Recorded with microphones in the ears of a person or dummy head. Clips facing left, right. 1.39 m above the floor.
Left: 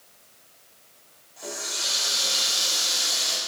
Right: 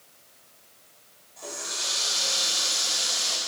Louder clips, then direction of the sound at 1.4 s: Left 2 dB; 5° left (ahead or behind).